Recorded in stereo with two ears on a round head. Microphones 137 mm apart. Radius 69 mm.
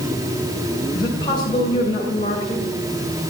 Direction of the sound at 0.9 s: 30° left (ahead or behind).